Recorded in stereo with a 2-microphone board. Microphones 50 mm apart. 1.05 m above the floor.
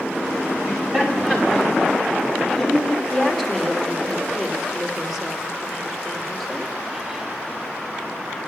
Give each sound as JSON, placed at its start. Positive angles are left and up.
{"t": 0.6, "sound": "laughter", "side_deg": -20, "distance_m": 4.5}
{"t": 3.1, "sound": "a woman speaking", "side_deg": 0, "distance_m": 2.0}